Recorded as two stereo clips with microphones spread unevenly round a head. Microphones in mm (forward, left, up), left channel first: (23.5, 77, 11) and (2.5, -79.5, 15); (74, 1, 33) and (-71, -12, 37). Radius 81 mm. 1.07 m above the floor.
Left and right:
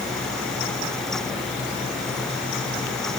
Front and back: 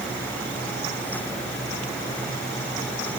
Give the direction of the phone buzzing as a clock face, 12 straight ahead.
I don't hear a phone buzzing.